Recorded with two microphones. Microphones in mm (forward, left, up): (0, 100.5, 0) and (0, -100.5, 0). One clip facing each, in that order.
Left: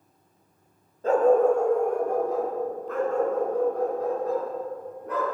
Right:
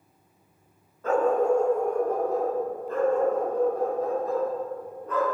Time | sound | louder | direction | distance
1.0 | a dog barking | left 3 dB | 30° left (ahead or behind) | 1.3 m